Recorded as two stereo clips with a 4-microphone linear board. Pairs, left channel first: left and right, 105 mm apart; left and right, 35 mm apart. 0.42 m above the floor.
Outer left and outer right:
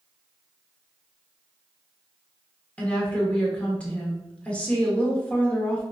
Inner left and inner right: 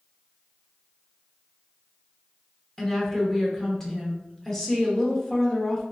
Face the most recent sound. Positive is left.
turn(degrees=15)  # may be behind; listen again after turning